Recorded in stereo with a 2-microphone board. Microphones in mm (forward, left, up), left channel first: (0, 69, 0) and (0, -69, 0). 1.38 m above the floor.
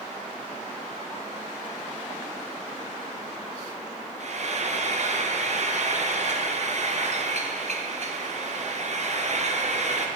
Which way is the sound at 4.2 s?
55° right (ahead or behind).